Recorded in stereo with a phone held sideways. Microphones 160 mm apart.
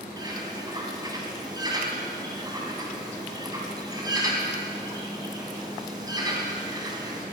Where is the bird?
25° right (ahead or behind), 2.5 m.